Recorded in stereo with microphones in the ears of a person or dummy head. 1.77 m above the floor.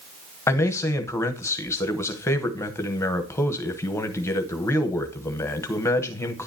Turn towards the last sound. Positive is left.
turn(degrees=15)  # may be behind; listen again after turning